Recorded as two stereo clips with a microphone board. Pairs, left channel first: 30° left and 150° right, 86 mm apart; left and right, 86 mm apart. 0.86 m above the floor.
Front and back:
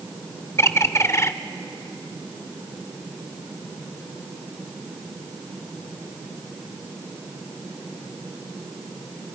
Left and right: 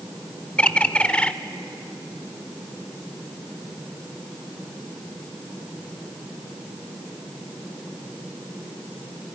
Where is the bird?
25° left, 0.5 m.